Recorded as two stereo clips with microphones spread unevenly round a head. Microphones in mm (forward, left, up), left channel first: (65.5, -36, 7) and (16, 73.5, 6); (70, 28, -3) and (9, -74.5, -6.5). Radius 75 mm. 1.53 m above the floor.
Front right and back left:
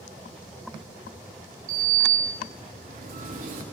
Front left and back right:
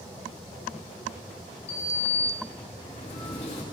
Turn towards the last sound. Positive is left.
turn(degrees=110)